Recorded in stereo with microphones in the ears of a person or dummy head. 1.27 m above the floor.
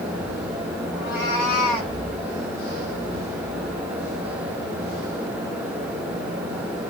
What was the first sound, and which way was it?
A cat meowing, 10° right (ahead or behind).